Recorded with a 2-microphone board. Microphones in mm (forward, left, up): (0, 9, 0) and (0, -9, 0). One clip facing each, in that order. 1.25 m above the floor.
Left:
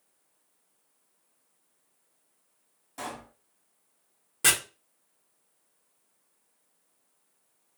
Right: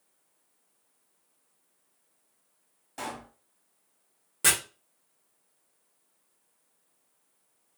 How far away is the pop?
About 2.0 m.